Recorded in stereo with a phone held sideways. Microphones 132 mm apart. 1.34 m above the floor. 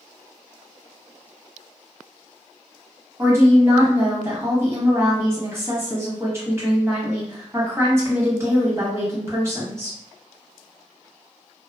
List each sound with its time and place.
3.2 s a woman speaking: 20° right (ahead or behind), 1.2 m